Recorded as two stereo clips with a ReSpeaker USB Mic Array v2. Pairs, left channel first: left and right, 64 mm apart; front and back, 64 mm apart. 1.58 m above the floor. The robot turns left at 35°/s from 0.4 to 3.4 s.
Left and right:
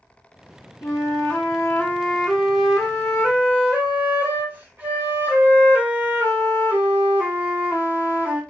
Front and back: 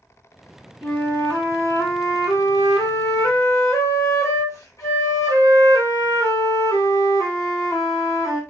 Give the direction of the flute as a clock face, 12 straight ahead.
10 o'clock.